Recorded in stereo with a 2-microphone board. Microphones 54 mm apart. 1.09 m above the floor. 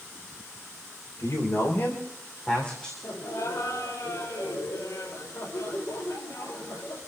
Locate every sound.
1.2 s a man speaking: 60° left (ahead or behind), 4 m; by 2.9 s 15° left (ahead or behind), 3.5 m
3.0 s laughter: 70° left (ahead or behind), 4 m